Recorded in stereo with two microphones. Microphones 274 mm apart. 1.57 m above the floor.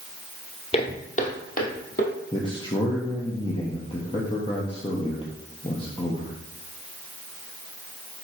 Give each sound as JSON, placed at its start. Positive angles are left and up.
{"t": 0.7, "sound": "footsteps", "side_deg": 20, "distance_m": 1.8}
{"t": 2.3, "sound": "a man speaking", "side_deg": 20, "distance_m": 1.1}